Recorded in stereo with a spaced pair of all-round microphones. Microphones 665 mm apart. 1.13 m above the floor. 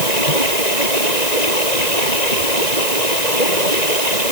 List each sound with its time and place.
0.0 s running water: 85° left